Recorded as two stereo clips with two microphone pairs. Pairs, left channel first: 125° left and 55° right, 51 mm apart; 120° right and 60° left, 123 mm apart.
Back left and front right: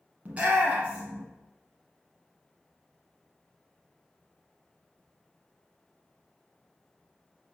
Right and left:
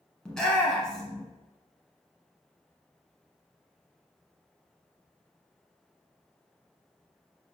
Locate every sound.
0.2 s a shout: 40° right, 1.3 m